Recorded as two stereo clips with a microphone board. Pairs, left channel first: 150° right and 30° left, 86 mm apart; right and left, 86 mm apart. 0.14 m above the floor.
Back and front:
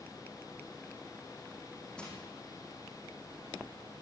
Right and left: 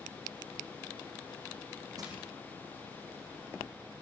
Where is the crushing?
130° left, 6.5 m.